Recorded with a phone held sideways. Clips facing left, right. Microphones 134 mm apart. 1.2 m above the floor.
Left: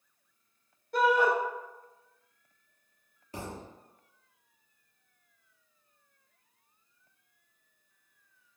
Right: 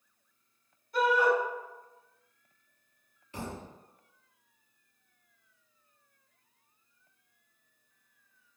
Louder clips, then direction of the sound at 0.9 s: Left 1 dB; 75° left (ahead or behind).